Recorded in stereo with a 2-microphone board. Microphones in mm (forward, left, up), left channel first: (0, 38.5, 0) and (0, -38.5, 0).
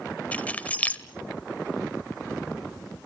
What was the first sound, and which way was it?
Keys jangling, 20° left (ahead or behind).